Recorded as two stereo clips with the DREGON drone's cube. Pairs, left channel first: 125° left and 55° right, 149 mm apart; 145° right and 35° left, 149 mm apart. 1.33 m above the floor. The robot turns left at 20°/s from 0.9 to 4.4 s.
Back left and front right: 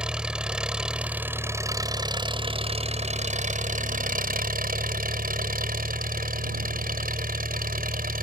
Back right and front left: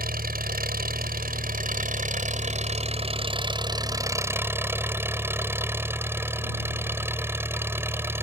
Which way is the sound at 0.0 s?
30° left.